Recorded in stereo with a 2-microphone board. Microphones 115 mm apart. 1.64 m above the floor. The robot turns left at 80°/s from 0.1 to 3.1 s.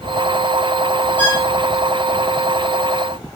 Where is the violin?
15° left (ahead or behind), 2 m; by 1.4 s 30° left (ahead or behind), 2 m.